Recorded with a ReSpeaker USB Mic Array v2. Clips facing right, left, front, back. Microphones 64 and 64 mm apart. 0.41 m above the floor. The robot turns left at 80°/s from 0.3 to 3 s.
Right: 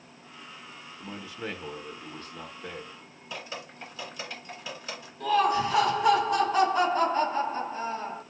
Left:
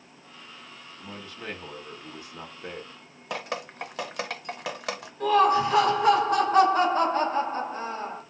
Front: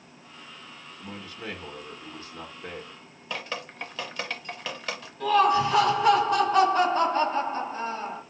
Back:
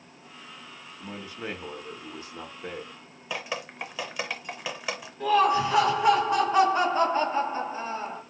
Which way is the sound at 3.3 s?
100° left.